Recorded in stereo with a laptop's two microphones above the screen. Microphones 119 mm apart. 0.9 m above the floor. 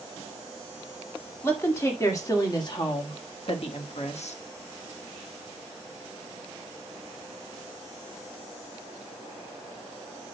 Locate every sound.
1.4 s a woman speaking: 20° left (ahead or behind), 2 m; by 4.4 s 70° left (ahead or behind), 1.2 m